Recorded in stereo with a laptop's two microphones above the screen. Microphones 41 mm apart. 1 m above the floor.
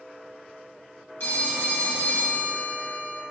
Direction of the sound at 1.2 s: 65° left (ahead or behind).